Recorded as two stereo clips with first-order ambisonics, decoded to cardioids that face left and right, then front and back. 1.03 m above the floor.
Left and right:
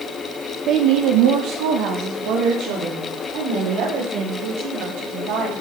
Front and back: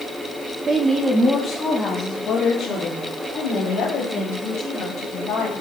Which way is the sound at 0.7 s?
125° right.